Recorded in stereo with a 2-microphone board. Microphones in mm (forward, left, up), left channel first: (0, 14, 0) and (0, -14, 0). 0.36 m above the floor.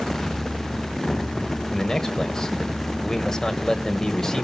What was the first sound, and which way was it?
A man speaking, 20° left (ahead or behind).